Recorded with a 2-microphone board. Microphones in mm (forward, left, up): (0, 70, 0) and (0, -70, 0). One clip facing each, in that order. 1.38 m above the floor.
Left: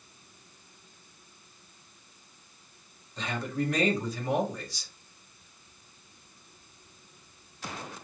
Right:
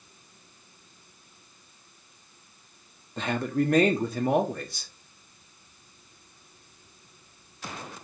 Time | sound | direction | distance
3.2 | a man speaking | 60° right (ahead or behind) | 0.9 m